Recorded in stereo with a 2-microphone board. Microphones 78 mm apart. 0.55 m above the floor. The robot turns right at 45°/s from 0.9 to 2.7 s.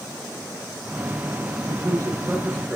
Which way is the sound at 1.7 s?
70° right (ahead or behind).